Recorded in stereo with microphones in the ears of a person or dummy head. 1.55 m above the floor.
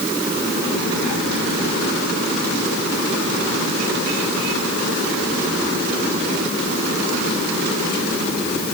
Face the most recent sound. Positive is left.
No sound to turn to.